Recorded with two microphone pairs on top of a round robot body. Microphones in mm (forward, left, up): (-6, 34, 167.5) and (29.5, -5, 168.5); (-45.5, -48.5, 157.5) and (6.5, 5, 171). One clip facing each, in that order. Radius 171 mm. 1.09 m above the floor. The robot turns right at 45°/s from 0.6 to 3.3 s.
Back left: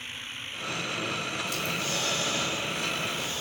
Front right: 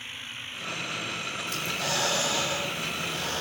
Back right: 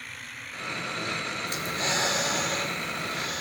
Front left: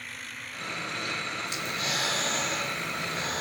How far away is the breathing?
About 0.9 m.